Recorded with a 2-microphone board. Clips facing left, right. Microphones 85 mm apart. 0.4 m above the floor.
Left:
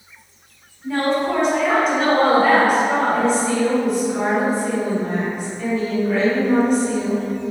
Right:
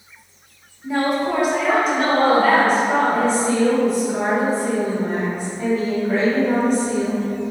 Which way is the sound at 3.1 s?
35° right (ahead or behind).